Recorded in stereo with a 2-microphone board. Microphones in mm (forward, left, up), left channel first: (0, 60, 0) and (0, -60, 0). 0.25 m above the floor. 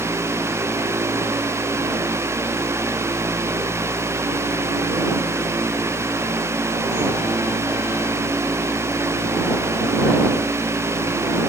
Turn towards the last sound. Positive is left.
No sound to turn to.